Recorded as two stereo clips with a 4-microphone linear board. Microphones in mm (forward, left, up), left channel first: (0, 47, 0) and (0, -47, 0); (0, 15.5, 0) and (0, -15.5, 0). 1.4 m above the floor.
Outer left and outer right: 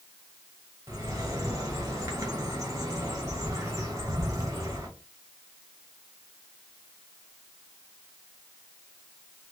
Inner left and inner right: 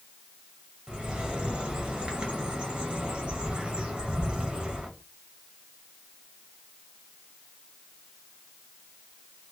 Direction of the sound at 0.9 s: 35° right (ahead or behind).